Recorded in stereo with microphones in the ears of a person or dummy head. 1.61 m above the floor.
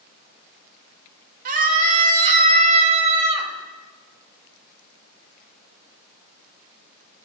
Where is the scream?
50° right (ahead or behind), 2.5 m; by 3.5 s 35° right (ahead or behind), 4.5 m.